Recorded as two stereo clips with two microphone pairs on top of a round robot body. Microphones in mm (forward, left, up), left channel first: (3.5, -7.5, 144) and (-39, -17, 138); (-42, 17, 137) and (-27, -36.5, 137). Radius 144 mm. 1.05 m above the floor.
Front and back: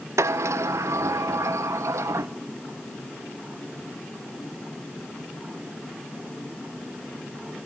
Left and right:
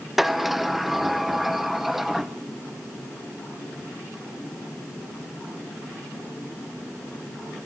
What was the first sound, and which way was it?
A sliding door, 160° right.